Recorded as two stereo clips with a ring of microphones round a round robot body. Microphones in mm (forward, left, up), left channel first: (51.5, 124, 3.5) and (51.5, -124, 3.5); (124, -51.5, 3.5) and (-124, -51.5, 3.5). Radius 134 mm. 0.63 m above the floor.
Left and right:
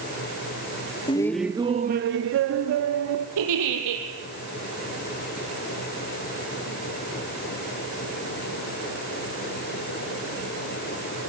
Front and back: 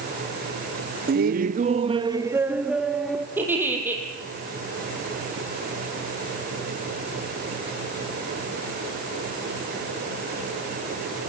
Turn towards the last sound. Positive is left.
turn(degrees=-100)